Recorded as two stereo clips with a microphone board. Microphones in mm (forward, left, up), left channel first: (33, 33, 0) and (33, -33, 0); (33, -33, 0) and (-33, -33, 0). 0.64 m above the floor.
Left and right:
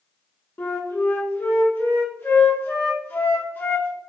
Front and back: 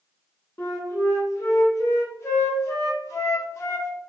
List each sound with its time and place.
0.6 s a flute: 35° left, 0.7 m